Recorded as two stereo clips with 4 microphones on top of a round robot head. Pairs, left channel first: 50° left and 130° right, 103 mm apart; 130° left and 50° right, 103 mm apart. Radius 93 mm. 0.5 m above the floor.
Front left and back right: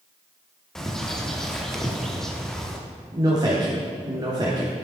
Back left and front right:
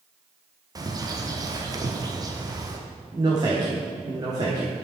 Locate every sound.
0.8 s a bird: 35° right, 1.2 m
3.1 s a man speaking: 90° right, 1.4 m